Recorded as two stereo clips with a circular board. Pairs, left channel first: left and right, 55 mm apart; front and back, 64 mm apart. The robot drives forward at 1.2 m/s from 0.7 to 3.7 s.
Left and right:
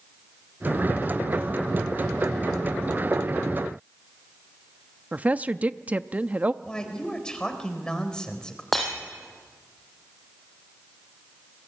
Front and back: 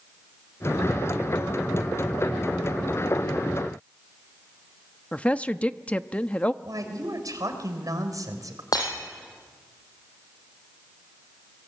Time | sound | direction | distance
5.1 | a woman speaking | 55° right | 0.7 m
6.6 | a woman speaking | 165° left | 3.5 m
8.7 | breaking glass | 5° left | 5.5 m